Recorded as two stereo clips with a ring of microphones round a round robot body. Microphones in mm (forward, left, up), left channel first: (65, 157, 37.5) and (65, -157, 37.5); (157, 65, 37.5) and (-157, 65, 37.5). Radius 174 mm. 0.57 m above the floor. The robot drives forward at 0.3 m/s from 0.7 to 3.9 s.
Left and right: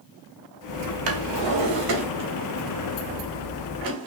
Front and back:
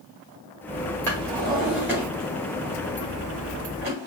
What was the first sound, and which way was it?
A drawer, 85° right.